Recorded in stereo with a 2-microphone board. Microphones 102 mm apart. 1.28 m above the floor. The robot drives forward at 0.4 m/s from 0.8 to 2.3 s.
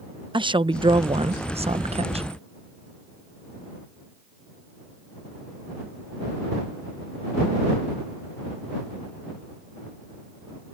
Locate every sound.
0.3 s a woman speaking: 55° right (ahead or behind); by 2.3 s 70° right (ahead or behind)